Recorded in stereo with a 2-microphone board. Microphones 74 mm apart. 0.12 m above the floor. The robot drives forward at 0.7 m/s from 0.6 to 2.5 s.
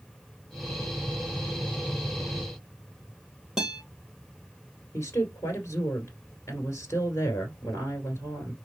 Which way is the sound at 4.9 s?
35° left (ahead or behind).